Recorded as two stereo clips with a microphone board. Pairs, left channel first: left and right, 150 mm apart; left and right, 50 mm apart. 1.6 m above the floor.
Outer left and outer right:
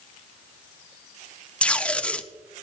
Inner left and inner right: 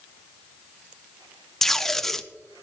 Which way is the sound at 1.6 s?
10° left (ahead or behind).